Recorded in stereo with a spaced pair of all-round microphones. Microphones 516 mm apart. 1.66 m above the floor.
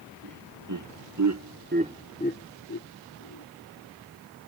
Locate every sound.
0.2 s laughter: 35° right (ahead or behind); by 3.5 s 35° left (ahead or behind)